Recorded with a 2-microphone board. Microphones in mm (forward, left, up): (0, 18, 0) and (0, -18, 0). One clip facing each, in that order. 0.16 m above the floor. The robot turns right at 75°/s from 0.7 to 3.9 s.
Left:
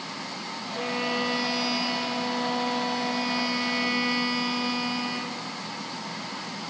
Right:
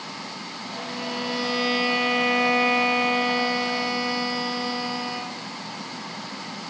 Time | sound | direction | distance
0.8 | a violin | 135° left | 1.9 m